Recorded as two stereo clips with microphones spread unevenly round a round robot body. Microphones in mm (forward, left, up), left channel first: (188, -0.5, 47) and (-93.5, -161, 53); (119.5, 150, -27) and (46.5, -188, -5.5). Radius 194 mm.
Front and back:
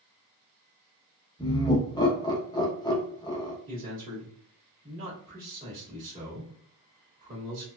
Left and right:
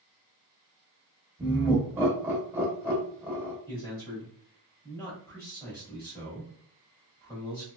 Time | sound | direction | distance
1.4 | laughter | 20° right | 0.8 m
3.7 | a man speaking | 155° left | 1.1 m